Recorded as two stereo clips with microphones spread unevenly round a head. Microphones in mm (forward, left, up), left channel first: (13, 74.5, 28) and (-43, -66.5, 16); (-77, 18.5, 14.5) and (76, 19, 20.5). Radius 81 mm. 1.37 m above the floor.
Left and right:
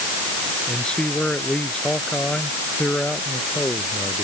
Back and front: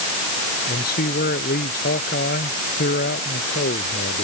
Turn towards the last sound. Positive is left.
turn(degrees=150)